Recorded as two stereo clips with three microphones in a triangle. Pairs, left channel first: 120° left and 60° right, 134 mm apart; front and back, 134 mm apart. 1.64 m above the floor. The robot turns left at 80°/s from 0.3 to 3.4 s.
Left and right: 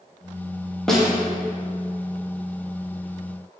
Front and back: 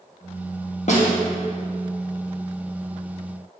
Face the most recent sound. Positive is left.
turn(degrees=-170)